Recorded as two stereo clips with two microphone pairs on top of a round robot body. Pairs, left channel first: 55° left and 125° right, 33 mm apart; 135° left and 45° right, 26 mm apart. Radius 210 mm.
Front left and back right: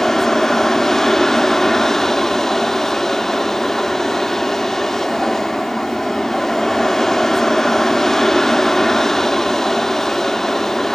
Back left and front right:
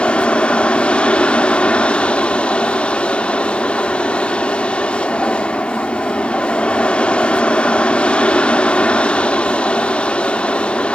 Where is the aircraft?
130° left.